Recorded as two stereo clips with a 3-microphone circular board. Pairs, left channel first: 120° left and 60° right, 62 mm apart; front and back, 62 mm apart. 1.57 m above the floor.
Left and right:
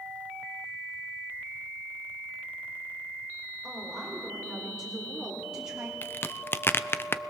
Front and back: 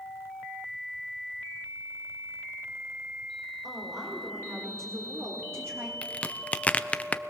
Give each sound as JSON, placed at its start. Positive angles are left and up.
{"t": 3.6, "sound": "a woman speaking", "azimuth_deg": -150, "distance_m": 5.5}
{"t": 6.0, "sound": "a crack", "azimuth_deg": 65, "distance_m": 0.7}